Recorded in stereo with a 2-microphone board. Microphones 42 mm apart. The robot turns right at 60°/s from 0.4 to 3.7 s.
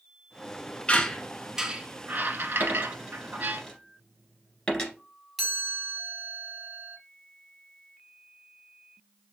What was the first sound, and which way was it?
A squeak, 30° left (ahead or behind).